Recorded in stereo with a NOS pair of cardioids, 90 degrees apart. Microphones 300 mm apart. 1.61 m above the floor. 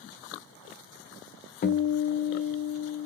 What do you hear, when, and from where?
1.6 s a guitar: 35° left, 0.6 m